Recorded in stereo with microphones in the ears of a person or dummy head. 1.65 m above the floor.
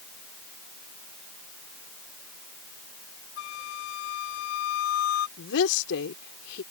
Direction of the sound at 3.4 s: 70° left (ahead or behind).